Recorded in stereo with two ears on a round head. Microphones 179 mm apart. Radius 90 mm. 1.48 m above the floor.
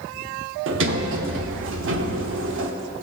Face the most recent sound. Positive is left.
turn(degrees=-65)  # may be behind; listen again after turning